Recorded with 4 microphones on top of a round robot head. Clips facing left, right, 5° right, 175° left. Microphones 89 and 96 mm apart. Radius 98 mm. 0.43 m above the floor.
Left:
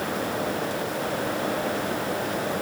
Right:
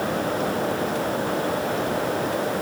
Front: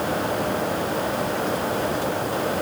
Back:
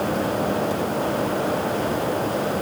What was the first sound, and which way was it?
Only background noise.